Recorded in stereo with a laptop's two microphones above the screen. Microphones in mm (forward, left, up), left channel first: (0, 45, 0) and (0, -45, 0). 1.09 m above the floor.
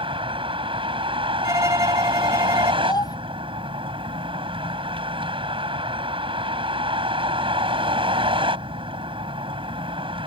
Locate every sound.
0.0 s a vehicle: 85° right
1.4 s a violin: 35° right (ahead or behind)
2.8 s a child speaking: 50° left (ahead or behind)